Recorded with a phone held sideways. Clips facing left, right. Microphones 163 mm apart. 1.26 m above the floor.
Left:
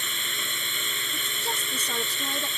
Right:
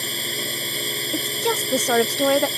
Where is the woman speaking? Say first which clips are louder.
Right 13 dB; 75° right (ahead or behind).